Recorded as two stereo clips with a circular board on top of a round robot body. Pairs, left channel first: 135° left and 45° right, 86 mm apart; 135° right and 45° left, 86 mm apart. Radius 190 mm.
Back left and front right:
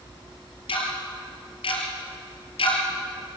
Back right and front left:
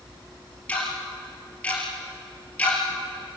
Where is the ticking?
150° left, 3.5 m.